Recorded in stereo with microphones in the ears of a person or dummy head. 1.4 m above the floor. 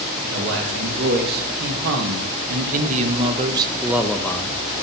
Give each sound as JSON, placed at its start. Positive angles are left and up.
{"t": 0.2, "sound": "a man speaking", "side_deg": -60, "distance_m": 2.0}